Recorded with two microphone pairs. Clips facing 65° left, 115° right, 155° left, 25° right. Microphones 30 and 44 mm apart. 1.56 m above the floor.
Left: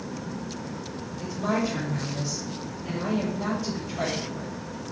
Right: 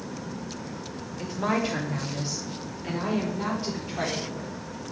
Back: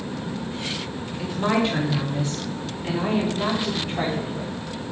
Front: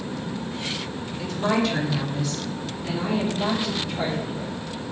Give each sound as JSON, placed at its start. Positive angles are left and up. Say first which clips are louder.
{"t": 1.2, "sound": "a woman speaking", "louder": "even, back 1 dB", "azimuth_deg": -130, "distance_m": 2.5}